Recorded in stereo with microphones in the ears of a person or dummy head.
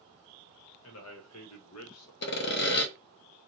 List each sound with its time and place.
0.8 s a man speaking: 60° left (ahead or behind), 1.0 m; by 2.1 s 75° left (ahead or behind), 1.0 m
2.2 s sawing: 60° left (ahead or behind), 0.8 m